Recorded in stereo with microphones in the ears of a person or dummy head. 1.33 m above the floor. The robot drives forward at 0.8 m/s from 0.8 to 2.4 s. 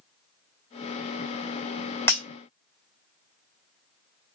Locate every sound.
2.1 s breaking glass: 10° left (ahead or behind), 2 m